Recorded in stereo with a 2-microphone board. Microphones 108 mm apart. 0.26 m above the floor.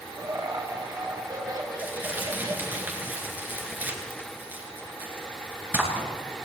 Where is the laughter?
35° right (ahead or behind), 1.1 m.